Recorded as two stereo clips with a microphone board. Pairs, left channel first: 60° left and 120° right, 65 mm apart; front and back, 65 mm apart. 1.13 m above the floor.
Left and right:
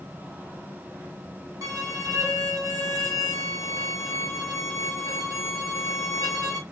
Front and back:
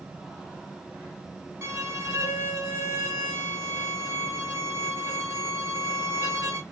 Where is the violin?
135° right, 2 m.